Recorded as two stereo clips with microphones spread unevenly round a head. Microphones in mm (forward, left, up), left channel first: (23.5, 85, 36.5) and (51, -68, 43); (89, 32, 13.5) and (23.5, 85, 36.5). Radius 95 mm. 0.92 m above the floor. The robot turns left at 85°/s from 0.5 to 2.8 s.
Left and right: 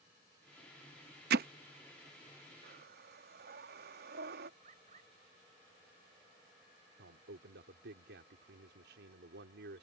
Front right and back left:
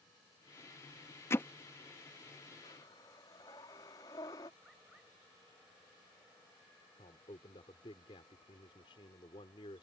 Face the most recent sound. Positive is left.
turn(degrees=-85)